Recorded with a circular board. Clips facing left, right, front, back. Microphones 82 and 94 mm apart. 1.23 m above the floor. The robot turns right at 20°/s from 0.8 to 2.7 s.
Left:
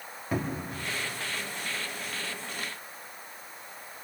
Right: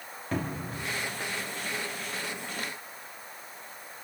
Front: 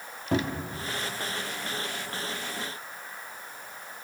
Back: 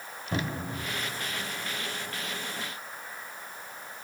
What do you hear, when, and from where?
0.3 s a cupboard door: 10° left, 2.5 m